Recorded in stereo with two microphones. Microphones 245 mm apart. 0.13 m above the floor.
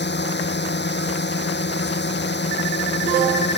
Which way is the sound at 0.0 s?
45° left (ahead or behind).